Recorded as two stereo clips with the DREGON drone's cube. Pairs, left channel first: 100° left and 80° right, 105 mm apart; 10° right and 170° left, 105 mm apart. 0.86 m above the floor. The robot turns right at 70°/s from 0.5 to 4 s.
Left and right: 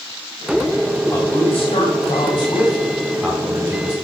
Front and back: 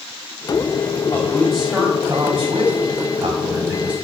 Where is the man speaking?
50° left, 2.5 m; by 4.0 s 110° right, 2.5 m.